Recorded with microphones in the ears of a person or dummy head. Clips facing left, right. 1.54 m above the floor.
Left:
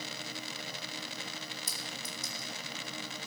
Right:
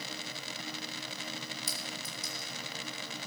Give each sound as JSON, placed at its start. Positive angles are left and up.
{"t": 1.7, "sound": "a clink", "side_deg": 40, "distance_m": 2.0}